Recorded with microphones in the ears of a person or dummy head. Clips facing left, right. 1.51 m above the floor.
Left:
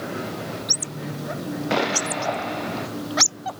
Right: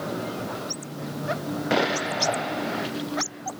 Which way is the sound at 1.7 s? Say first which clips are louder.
Even; 5° right (ahead or behind).